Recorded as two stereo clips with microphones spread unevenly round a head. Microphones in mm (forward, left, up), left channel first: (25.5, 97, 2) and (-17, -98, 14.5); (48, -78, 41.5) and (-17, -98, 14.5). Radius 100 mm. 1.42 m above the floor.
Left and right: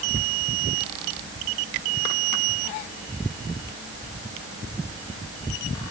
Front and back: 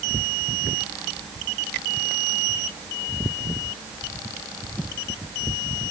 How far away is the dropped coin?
No dropped coin in this recording.